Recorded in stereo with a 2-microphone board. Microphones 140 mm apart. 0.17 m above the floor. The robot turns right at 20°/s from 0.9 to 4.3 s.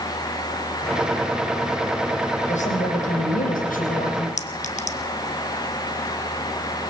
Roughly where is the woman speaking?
Ahead left.